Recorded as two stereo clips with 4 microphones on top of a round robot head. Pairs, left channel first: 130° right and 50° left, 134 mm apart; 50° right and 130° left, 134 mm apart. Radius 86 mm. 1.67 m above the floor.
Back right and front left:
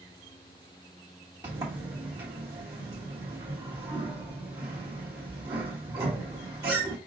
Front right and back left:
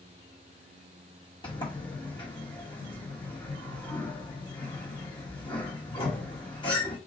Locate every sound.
1.4 s a sliding door: 10° right, 1.1 m